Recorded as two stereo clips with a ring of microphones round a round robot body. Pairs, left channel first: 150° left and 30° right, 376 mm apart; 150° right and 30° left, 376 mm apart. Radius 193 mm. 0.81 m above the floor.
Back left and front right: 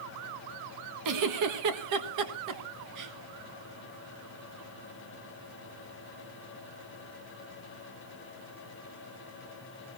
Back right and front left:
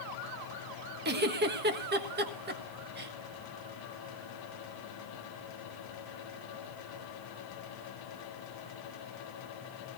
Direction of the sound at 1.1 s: 25° right.